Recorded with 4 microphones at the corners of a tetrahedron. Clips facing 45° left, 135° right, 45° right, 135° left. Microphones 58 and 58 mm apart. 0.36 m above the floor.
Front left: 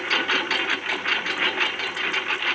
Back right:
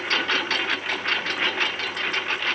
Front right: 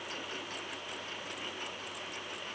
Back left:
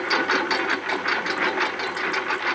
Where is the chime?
I don't hear a chime.